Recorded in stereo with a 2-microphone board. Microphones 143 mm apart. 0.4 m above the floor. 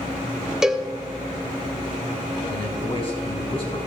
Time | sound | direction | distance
0.6 | a cowbell | 5° right (ahead or behind) | 1.1 m
2.5 | a man speaking | 40° left (ahead or behind) | 4 m